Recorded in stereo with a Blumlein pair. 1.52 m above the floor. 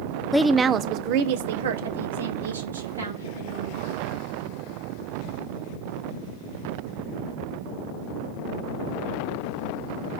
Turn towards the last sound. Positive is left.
turn(degrees=-75)